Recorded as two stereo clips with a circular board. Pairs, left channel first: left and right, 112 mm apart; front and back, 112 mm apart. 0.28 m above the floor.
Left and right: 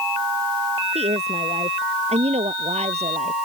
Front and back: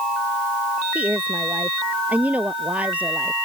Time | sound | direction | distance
0.9 | a woman speaking | 105° right | ?